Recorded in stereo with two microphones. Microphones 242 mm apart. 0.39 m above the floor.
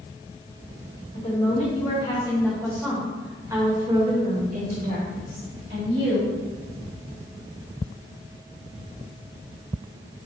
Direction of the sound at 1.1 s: 35° left (ahead or behind).